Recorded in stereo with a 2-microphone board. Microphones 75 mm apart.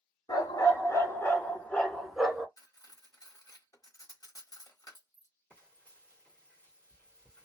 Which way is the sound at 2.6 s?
60° left (ahead or behind).